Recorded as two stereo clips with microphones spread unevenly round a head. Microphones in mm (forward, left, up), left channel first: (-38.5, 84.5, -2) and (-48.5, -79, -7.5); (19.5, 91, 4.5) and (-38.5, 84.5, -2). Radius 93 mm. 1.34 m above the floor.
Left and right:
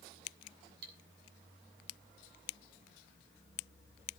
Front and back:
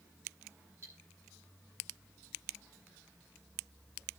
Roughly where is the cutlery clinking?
Right.